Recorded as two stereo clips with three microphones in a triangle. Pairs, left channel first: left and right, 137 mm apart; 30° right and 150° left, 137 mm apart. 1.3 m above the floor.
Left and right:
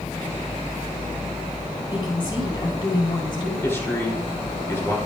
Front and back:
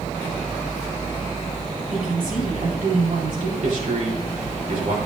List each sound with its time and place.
1.9 s a woman speaking: 145° left, 4 m
3.6 s a man speaking: 160° left, 3 m